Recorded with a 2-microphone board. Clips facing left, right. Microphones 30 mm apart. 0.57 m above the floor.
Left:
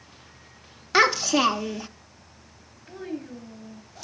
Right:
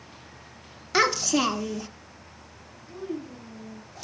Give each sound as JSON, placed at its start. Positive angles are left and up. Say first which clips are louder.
{"t": 0.9, "sound": "a child speaking", "louder": "left 3 dB", "side_deg": 15, "distance_m": 0.5}
{"t": 2.9, "sound": "a child speaking", "louder": "even", "side_deg": 50, "distance_m": 3.0}